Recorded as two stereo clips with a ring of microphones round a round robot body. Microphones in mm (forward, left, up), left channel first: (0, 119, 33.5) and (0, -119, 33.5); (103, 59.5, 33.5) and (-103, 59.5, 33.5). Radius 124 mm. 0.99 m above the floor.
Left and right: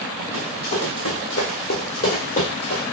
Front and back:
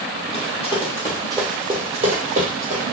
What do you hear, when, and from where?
0.3 s running footsteps: 85° left, 1.4 m; by 2.8 s 150° left, 1.6 m